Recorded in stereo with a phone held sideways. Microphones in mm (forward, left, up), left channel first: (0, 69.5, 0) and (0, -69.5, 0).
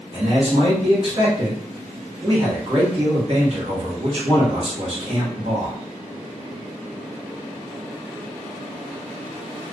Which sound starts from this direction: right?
A man speaking, at 0.1 s.